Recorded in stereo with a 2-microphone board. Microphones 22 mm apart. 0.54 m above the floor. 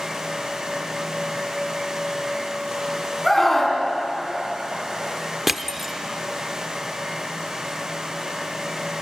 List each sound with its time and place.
3.2 s a scream: 15° left (ahead or behind), 4 m
5.5 s crushing: centre (ahead or behind), 0.7 m